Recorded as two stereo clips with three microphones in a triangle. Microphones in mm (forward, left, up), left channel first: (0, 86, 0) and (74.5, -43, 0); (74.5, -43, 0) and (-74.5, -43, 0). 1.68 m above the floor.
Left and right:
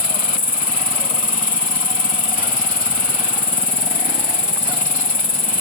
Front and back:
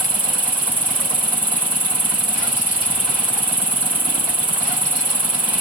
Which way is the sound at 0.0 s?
100° left.